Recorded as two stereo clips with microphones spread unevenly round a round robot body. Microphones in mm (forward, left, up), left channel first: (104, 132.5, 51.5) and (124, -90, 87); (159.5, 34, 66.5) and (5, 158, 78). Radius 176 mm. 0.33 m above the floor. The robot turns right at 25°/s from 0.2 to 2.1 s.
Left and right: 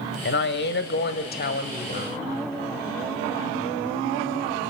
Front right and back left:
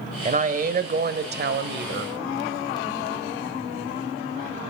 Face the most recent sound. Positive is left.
turn(degrees=140)